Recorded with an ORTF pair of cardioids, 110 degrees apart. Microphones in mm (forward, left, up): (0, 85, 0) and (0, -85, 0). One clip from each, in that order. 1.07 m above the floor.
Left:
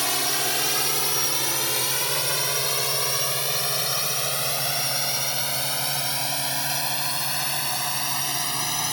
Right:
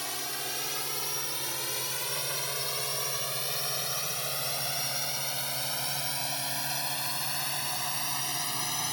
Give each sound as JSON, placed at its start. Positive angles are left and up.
{"t": 0.0, "sound": "a drone", "azimuth_deg": 60}